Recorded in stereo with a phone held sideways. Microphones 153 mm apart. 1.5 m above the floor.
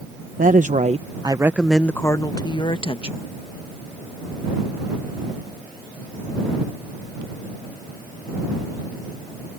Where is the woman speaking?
65° right (ahead or behind); by 3.2 s 40° left (ahead or behind).